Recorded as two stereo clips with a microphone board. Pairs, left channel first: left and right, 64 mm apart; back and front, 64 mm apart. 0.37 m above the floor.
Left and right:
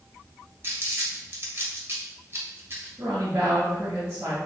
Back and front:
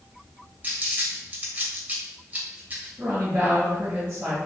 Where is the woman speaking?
50° right, 1.5 m.